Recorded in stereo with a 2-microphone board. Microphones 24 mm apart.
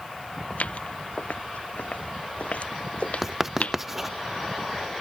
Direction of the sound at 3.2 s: 15° right (ahead or behind).